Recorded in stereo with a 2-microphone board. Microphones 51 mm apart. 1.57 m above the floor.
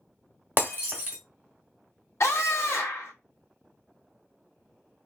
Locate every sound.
0.6 s breaking glass: 35° right (ahead or behind), 1.2 m
2.2 s a scream: 65° left (ahead or behind), 1.0 m